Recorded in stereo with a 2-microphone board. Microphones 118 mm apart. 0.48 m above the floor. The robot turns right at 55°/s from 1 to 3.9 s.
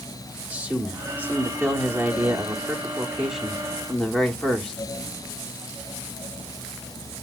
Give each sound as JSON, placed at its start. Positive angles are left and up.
{"t": 0.5, "sound": "a man speaking", "side_deg": -10, "distance_m": 1.0}